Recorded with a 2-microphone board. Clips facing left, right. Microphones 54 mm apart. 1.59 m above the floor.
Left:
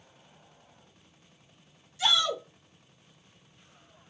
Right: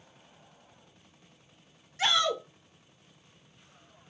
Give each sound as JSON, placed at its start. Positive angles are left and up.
{"t": 2.0, "sound": "a shout", "side_deg": -50, "distance_m": 2.0}